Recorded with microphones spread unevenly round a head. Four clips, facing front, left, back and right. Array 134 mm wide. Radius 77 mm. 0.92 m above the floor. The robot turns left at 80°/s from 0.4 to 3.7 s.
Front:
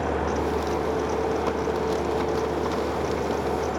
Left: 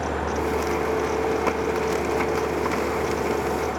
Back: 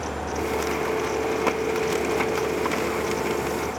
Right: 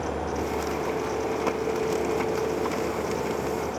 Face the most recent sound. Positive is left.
No sound to turn to.